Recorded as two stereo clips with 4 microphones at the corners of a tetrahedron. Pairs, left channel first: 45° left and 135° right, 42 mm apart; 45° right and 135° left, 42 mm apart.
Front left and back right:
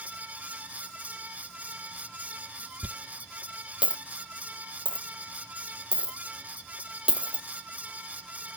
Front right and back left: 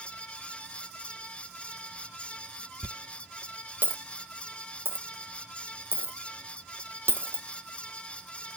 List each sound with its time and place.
2.8 s a dropped coin: 160° left, 0.6 m